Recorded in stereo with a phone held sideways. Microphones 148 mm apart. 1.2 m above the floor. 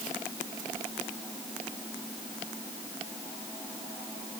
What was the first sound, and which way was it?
Only background noise.